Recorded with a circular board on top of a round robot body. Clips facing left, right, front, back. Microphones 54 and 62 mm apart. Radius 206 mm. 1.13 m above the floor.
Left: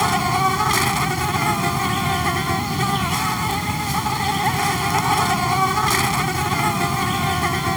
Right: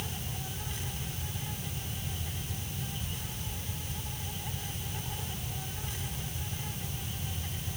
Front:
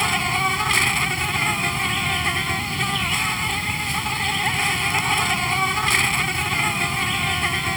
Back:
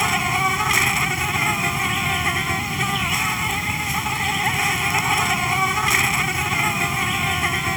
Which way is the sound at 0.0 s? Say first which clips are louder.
Left 23 dB, back 1 dB; 95° left.